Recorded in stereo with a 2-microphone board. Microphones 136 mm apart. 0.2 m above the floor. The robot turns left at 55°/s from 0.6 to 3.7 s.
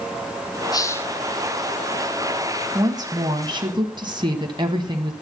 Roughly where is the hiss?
Left.